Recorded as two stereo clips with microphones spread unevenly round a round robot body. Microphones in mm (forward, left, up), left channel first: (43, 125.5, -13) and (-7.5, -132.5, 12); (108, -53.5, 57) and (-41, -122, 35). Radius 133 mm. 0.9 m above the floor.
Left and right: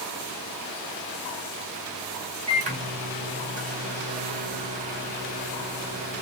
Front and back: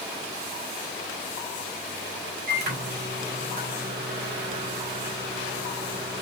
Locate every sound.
2.5 s a microwave: 170° right, 2 m